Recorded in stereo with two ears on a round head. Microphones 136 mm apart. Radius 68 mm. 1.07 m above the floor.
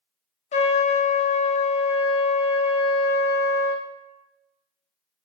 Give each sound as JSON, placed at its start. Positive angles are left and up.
{"t": 0.5, "sound": "a trumpet", "side_deg": 45, "distance_m": 0.8}